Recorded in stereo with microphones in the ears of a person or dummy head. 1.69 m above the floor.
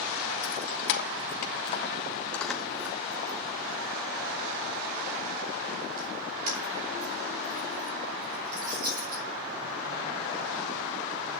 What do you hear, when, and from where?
0.4 s keys jangling: 65° left (ahead or behind), 1.6 m; by 9.2 s 50° right (ahead or behind), 6 m